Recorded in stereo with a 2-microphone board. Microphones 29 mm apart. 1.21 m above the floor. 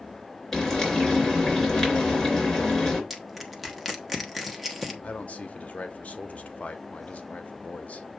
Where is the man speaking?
65° left (ahead or behind), 0.8 m.